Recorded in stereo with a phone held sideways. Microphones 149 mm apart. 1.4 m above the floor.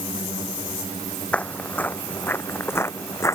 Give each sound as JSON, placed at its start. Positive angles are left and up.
{"t": 1.3, "sound": "footsteps", "side_deg": 10}